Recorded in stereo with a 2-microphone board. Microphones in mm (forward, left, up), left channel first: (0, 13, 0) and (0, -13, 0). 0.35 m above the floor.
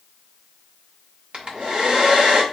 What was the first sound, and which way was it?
A hair dryer, 45° right (ahead or behind).